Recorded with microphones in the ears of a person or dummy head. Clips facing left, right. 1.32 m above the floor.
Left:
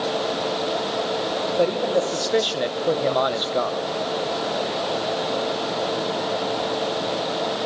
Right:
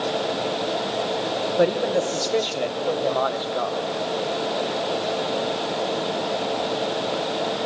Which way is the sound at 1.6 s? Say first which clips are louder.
Right 1 dB; 15° right (ahead or behind).